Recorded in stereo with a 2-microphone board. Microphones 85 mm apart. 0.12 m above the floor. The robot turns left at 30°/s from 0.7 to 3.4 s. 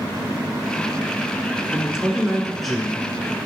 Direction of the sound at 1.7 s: 10° right (ahead or behind).